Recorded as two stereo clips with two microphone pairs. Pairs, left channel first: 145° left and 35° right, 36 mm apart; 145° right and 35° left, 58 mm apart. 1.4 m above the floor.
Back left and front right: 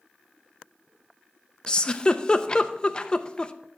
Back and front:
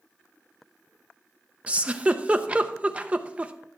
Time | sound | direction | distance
1.7 | a giggle | 90° left | 0.5 m